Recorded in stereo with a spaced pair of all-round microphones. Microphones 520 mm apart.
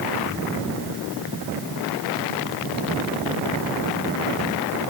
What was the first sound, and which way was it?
Only background noise.